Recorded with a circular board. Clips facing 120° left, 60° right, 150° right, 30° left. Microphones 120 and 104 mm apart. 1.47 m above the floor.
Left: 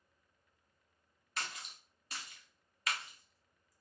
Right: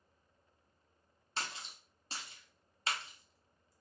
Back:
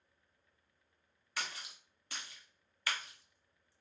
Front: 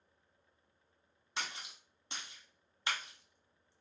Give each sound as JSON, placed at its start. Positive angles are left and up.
{"t": 1.4, "sound": "a splash", "azimuth_deg": -20, "distance_m": 0.6}